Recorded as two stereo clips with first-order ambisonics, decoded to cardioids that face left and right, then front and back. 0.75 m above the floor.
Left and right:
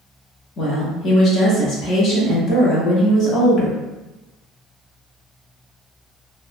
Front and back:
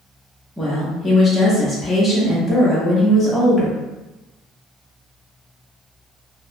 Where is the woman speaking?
85° left, 0.6 m.